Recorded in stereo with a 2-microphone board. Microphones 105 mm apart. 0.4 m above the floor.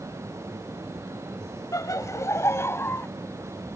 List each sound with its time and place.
1.7 s laughter: 35° left (ahead or behind); by 3.1 s 25° left (ahead or behind)